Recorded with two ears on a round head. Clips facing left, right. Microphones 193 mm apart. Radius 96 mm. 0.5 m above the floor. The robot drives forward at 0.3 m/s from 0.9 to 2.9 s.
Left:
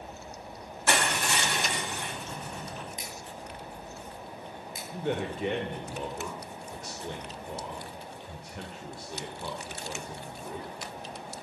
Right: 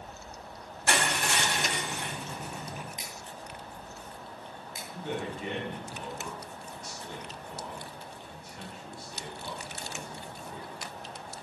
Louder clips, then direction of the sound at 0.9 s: Left 1 dB; 70° left (ahead or behind).